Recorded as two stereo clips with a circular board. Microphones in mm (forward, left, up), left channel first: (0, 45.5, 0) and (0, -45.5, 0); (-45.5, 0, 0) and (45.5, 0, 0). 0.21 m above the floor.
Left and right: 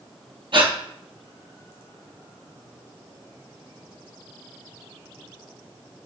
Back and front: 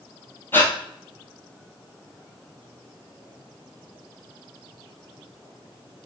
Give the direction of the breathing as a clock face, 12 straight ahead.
4 o'clock.